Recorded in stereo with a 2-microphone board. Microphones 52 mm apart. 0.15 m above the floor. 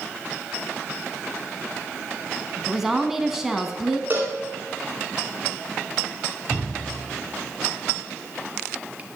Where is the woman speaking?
5° right (ahead or behind), 1.1 m.